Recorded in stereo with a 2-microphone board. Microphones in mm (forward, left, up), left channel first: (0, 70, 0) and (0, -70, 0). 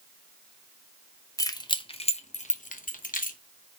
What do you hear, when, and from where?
1.4 s keys jangling: 25° left (ahead or behind), 0.8 m; by 3.4 s 75° left (ahead or behind), 1.0 m